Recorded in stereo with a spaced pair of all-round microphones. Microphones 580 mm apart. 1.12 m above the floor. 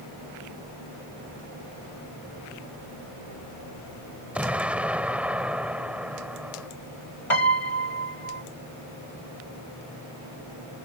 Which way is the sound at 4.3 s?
Centre (ahead or behind).